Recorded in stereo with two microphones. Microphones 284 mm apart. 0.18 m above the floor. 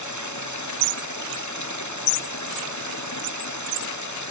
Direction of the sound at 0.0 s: 85° left.